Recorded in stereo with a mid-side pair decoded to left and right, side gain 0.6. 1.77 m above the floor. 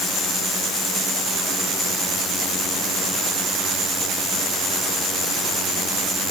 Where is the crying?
I don't hear crying.